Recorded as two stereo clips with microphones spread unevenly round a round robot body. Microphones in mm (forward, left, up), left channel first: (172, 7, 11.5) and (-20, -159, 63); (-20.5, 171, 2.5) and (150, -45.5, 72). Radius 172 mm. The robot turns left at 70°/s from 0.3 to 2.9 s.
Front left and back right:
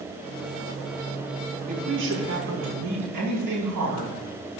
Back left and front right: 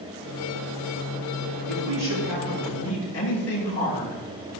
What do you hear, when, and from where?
1.7 s a woman speaking: 75° right, 6.5 m; by 4.5 s 160° right, 6.5 m